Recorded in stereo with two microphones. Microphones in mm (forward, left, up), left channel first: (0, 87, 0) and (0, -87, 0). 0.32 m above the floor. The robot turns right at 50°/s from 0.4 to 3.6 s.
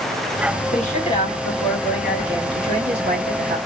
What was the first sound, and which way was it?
A woman speaking, 125° left.